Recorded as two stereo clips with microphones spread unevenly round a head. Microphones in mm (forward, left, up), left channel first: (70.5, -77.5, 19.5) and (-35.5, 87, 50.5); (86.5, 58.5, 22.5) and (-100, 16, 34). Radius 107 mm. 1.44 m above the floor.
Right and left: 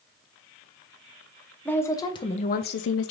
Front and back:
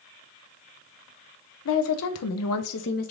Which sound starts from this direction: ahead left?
A woman speaking, at 1.6 s.